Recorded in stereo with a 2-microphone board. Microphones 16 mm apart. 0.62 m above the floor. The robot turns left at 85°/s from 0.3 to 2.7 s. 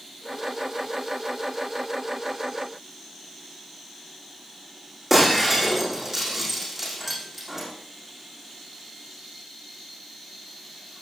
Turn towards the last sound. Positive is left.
turn(degrees=-15)  # may be behind; listen again after turning